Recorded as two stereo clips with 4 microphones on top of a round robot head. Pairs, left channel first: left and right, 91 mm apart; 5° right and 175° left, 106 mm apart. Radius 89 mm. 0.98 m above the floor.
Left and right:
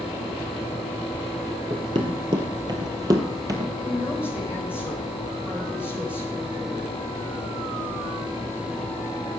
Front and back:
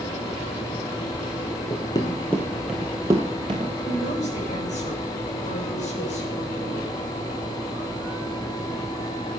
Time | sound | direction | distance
1.7 | running footsteps | 50° right | 1.1 m
3.8 | a woman speaking | 10° right | 4.5 m